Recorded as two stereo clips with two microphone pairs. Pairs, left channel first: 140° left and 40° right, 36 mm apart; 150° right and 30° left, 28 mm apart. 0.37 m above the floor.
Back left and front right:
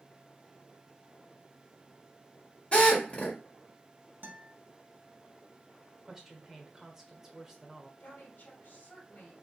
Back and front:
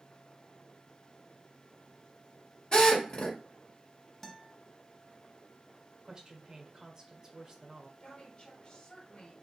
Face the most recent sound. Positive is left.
turn(degrees=160)